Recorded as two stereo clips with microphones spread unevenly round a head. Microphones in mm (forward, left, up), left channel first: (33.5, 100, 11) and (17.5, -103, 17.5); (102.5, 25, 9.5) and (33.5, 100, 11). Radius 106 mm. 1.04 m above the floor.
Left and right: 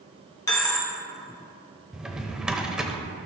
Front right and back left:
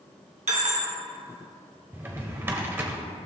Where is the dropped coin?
160° left, 1.2 m.